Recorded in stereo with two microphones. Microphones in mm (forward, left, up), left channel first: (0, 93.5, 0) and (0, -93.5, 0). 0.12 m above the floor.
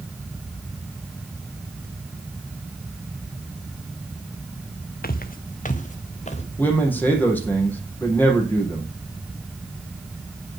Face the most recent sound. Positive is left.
turn(degrees=10)  # may be behind; listen again after turning